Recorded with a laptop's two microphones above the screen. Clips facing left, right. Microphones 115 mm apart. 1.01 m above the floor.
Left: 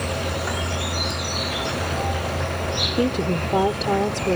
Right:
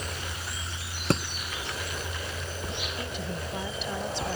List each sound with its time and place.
0.0 s an insect: 70° left (ahead or behind)
1.1 s a thud: 85° right
3.0 s a woman speaking: 75° left (ahead or behind)